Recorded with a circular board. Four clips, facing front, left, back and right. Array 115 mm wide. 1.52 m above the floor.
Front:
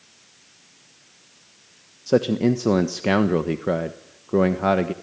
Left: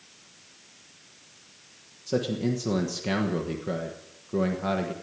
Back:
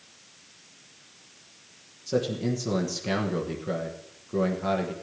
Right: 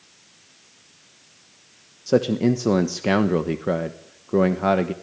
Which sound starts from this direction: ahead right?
A man speaking, at 2.1 s.